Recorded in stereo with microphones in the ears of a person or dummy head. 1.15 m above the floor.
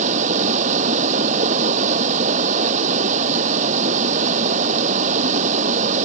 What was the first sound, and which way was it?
Running water, 40° right (ahead or behind).